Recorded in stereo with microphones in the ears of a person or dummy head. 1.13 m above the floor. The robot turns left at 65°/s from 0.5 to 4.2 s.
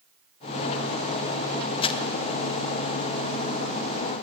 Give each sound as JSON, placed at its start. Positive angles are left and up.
{"t": 1.8, "sound": "crumpling", "side_deg": 30, "distance_m": 0.5}